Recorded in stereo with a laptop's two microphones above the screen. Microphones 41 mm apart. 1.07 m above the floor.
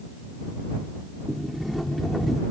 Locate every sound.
1.3 s a sliding door: centre (ahead or behind)